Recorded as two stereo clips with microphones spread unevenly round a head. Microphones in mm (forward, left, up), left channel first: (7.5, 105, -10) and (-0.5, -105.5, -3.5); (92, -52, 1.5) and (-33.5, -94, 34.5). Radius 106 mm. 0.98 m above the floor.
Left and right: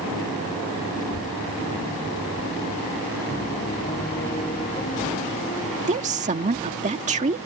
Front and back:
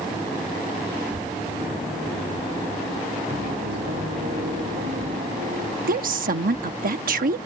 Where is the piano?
155° left.